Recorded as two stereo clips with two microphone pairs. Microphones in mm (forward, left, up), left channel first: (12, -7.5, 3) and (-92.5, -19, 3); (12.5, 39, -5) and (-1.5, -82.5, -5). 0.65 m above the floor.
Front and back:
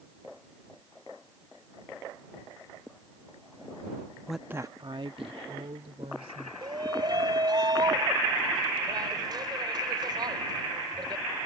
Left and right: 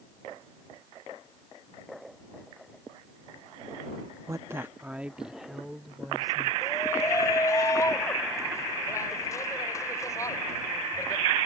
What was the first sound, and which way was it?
A woman speaking, 85° right.